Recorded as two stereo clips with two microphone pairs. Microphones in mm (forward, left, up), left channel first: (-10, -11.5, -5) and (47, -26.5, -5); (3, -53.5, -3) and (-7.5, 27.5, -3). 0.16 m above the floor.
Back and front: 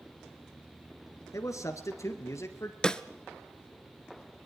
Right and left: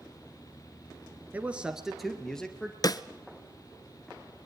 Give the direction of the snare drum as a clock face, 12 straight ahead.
4 o'clock.